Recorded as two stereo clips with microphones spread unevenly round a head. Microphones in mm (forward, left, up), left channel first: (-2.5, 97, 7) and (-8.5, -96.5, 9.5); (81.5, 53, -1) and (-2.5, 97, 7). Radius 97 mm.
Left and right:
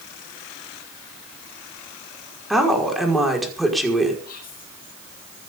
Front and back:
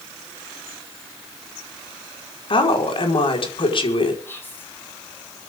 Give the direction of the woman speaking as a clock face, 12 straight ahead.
12 o'clock.